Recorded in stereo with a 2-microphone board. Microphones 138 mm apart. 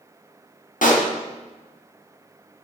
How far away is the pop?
About 1.4 m.